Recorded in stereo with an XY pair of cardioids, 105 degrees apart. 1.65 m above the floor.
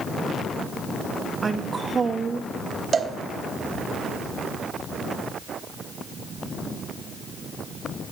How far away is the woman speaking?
About 0.7 m.